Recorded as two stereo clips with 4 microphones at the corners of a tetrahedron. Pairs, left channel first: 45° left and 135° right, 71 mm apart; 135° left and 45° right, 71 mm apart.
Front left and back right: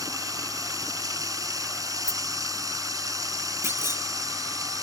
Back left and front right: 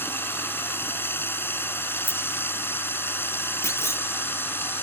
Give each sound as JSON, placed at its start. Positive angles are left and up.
{"t": 0.0, "sound": "running water", "azimuth_deg": -170}
{"t": 2.0, "sound": "a rattle", "azimuth_deg": 85}
{"t": 3.6, "sound": "a clunk", "azimuth_deg": 175}